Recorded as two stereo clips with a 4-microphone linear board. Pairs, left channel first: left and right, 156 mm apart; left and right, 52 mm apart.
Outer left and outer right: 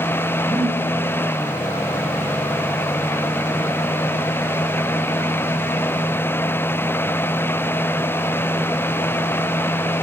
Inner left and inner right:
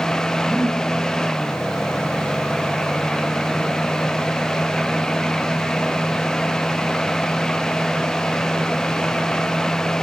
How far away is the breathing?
About 8 m.